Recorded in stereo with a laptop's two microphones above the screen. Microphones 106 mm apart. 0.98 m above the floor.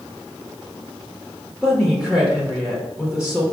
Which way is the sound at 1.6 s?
5° left (ahead or behind).